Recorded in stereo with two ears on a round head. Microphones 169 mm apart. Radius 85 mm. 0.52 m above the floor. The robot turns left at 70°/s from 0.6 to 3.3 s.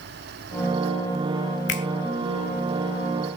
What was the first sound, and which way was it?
A finger snap, 65° left (ahead or behind).